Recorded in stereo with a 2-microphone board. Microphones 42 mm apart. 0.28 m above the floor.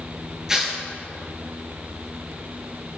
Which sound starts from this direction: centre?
Tearing paper, at 0.5 s.